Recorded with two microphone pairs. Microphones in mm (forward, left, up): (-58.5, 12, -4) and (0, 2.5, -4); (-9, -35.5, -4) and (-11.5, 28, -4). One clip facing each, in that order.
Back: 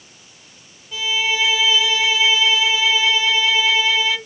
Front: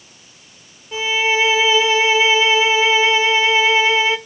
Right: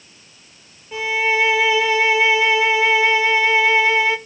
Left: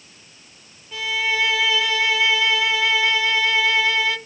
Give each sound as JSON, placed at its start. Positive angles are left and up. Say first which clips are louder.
{"t": 0.9, "sound": "a violin", "louder": "front 4 dB, right 4 dB", "azimuth_deg": -40, "distance_m": 0.7}